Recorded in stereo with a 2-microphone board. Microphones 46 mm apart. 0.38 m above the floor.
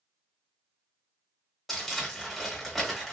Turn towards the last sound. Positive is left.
turn(degrees=5)  # may be behind; listen again after turning